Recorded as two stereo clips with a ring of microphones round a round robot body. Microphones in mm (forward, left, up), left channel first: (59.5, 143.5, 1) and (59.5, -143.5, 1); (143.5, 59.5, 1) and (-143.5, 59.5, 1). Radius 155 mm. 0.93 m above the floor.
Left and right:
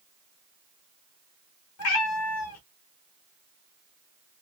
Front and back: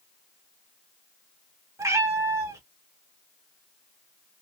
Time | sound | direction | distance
1.8 | a cat meowing | 100° left | 0.9 m